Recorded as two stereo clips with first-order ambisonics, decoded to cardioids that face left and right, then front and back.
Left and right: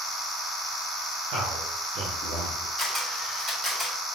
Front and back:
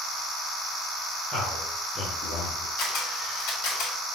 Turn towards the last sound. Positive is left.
turn(degrees=-20)